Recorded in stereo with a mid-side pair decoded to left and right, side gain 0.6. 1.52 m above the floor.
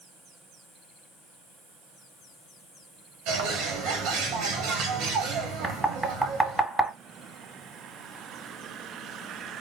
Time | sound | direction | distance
3.3 | a bird | 70° right | 1.4 m
5.6 | knocking | 10° right | 2 m